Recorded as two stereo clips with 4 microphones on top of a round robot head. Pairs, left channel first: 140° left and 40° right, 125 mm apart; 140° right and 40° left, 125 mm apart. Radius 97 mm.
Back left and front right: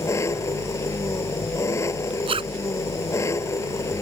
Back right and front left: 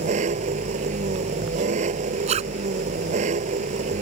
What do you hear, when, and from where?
0.0 s an engine running: 70° left
2.3 s a zipper: 5° left